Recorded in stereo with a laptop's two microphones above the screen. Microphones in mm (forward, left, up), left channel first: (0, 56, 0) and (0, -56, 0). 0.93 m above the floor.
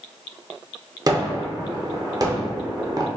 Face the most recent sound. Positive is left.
turn(degrees=-35)  # may be behind; listen again after turning